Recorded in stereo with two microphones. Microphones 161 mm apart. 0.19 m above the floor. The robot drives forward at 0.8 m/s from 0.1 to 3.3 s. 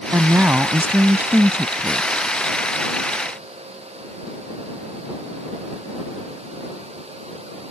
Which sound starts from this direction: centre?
A woman speaking, at 0.1 s.